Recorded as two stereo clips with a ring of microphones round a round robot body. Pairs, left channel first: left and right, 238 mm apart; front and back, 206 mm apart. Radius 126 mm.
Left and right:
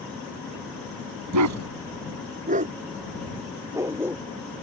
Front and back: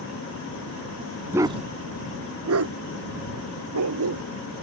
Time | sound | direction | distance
1.3 | a dog barking | 100° right | ?